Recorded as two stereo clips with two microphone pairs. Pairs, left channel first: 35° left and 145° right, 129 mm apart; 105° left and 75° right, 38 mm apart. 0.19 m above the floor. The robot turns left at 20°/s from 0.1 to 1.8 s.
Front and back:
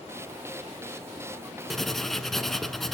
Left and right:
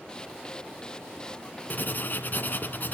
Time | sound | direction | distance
1.7 | writing | 120° left | 0.9 m